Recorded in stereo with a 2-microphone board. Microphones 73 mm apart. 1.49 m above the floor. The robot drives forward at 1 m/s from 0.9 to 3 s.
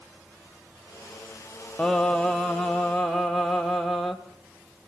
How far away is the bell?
I don't hear a bell.